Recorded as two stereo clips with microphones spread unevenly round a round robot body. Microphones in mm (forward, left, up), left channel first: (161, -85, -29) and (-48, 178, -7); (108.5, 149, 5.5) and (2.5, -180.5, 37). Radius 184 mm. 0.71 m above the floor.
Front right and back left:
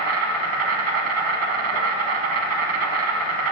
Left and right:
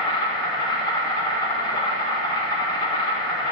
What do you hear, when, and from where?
0.0 s an insect: 150° left, 0.7 m